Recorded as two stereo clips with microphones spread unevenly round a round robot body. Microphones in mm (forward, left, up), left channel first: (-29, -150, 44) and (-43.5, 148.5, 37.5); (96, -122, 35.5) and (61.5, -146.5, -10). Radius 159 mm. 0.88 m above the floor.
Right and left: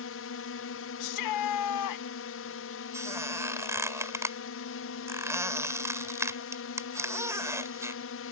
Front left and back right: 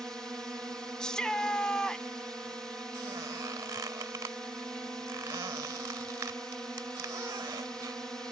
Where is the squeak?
175° left.